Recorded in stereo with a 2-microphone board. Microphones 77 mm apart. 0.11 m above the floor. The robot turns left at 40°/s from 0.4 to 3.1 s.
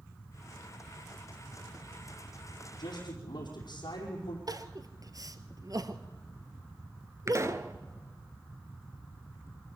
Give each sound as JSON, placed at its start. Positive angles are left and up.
{"t": 2.8, "sound": "a man speaking", "side_deg": 70, "distance_m": 5.0}
{"t": 4.5, "sound": "crying", "side_deg": -50, "distance_m": 1.1}
{"t": 7.3, "sound": "a pop", "side_deg": -40, "distance_m": 0.9}